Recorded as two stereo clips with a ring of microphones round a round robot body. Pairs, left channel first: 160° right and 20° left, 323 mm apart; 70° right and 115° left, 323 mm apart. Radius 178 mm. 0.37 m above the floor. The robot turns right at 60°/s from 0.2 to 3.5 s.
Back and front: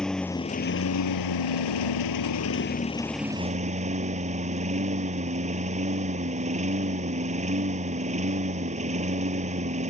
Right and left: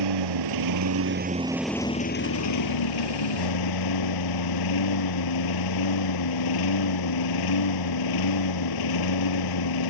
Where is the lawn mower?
115° left; by 9.9 s 50° right.